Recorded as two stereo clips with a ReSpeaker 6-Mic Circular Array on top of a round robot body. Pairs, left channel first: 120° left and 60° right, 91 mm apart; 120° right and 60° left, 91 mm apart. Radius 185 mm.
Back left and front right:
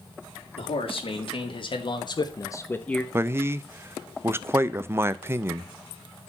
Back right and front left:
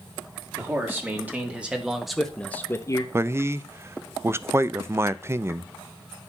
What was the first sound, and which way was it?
A man speaking, 125° left.